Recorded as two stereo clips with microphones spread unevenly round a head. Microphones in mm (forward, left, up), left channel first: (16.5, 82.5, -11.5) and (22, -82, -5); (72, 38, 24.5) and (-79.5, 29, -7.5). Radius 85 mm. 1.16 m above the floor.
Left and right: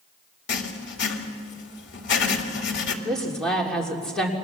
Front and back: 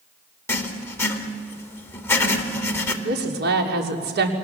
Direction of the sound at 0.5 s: 75° left.